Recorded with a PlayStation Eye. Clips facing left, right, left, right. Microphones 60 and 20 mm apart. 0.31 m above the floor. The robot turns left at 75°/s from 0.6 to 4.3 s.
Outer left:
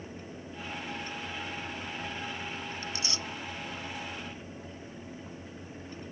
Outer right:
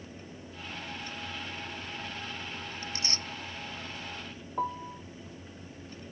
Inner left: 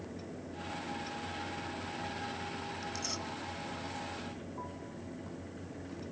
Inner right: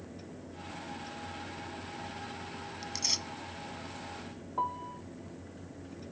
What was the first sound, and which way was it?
Tearing paper, 25° right (ahead or behind).